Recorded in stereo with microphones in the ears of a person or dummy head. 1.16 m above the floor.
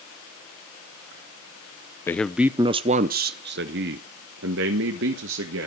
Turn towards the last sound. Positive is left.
turn(degrees=-70)  # may be behind; listen again after turning